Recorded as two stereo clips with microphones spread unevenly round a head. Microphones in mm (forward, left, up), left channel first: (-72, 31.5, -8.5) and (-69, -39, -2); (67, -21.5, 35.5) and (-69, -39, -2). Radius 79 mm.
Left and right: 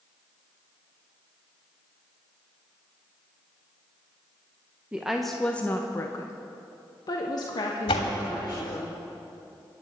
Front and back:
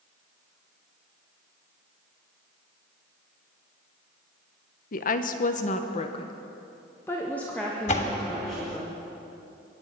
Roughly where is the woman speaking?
Ahead.